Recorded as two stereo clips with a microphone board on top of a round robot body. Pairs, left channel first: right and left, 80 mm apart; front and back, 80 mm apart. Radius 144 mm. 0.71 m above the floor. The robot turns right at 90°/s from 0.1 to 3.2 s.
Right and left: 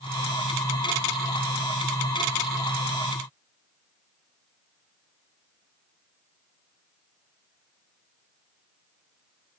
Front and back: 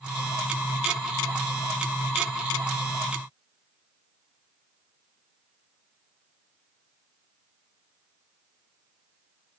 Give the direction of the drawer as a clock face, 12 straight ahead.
I don't hear a drawer.